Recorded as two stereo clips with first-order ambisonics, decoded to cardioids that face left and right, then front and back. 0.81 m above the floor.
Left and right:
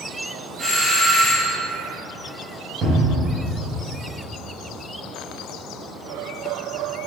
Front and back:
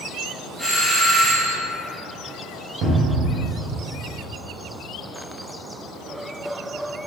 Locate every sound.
0.6 s a doorbell: 95° right, 1.8 m
2.8 s a cupboard door: 145° right, 0.8 m